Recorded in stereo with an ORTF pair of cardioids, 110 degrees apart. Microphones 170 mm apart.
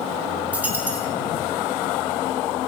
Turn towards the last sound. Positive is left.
turn(degrees=-10)